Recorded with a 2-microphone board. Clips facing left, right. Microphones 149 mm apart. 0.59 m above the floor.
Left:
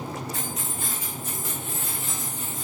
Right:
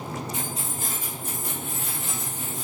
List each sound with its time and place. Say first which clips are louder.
0.3 s keys jangling: right 1 dB; 20° right (ahead or behind), 1.0 m; by 2.6 s 75° right (ahead or behind), 2.5 m